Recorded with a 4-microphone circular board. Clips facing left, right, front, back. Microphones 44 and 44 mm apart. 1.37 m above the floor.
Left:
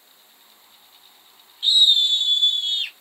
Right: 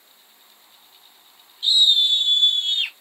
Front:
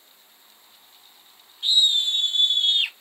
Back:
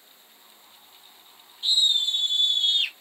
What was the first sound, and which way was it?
A scream, 30° left.